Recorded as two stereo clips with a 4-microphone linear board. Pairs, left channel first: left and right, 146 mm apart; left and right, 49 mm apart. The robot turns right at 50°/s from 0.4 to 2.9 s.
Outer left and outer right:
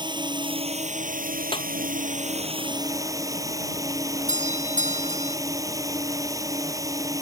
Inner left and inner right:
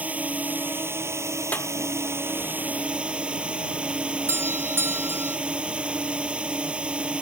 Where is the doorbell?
60° right (ahead or behind).